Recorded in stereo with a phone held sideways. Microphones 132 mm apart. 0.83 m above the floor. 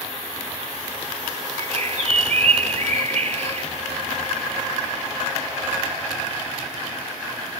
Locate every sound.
1.6 s a bird: 55° right (ahead or behind)